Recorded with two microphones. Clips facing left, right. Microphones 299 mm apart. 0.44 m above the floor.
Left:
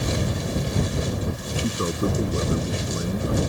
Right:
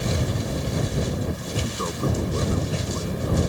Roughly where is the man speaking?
Left.